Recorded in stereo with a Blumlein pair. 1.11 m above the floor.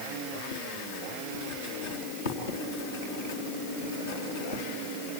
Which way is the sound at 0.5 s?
60° left.